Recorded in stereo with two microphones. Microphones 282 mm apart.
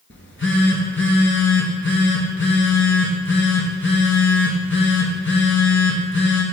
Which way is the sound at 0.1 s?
45° left (ahead or behind).